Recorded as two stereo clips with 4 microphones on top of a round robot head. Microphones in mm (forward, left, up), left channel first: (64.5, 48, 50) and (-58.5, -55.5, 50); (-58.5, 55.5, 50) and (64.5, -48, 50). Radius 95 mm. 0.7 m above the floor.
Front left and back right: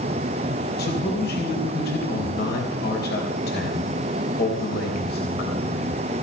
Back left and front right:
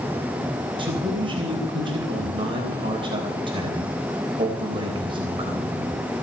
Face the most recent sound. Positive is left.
turn(degrees=20)